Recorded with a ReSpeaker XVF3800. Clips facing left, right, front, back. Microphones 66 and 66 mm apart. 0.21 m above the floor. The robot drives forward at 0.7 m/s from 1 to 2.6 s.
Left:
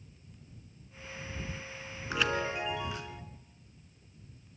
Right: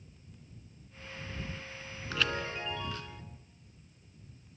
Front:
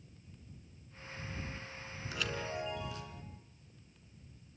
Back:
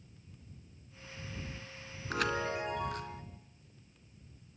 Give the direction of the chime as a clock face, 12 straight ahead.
7 o'clock.